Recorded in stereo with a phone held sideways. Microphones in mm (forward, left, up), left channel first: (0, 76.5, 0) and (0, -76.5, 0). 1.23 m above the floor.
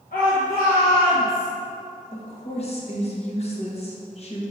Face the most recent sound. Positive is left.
turn(degrees=45)  # may be behind; listen again after turning